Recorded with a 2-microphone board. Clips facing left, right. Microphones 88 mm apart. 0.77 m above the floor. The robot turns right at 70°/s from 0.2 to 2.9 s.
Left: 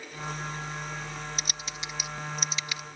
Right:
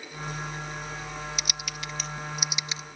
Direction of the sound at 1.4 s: 35° left (ahead or behind).